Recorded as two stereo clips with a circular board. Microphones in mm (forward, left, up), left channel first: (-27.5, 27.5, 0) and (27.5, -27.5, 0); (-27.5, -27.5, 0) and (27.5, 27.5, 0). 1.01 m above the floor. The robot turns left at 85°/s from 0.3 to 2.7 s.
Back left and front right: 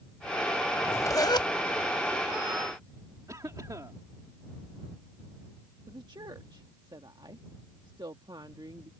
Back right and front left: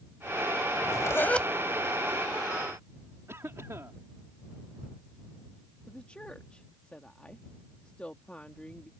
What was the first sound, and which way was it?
A zipper, 155° right.